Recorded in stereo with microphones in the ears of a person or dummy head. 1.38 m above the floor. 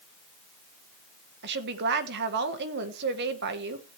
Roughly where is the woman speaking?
Right.